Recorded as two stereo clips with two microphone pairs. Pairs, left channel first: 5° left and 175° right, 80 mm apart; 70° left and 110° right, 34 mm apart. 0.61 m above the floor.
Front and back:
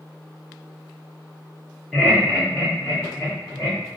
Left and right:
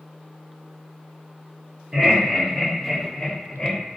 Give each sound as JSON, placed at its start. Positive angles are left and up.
{"t": 1.9, "sound": "laughter", "azimuth_deg": -80, "distance_m": 1.1}